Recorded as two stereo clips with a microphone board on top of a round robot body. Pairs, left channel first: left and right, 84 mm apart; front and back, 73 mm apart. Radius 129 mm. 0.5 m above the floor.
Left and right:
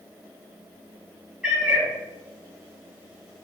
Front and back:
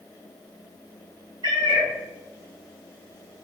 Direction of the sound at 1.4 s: 170° right.